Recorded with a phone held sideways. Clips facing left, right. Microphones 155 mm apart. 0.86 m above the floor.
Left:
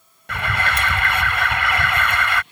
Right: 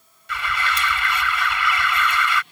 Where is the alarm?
55° left (ahead or behind).